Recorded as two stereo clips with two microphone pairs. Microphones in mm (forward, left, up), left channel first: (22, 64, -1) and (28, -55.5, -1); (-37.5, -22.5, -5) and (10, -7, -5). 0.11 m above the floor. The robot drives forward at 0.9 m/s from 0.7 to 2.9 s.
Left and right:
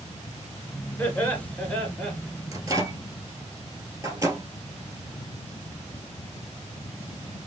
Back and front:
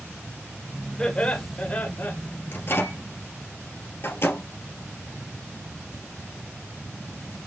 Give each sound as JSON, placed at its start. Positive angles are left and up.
{"t": 1.0, "sound": "laughter", "azimuth_deg": 155, "distance_m": 1.9}
{"t": 2.5, "sound": "a microwave", "azimuth_deg": -145, "distance_m": 1.6}